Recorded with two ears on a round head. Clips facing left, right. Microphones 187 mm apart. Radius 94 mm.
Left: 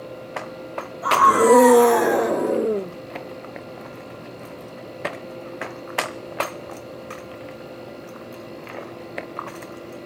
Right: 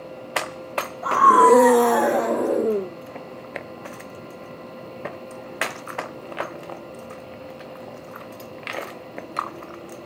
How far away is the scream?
About 1.5 m.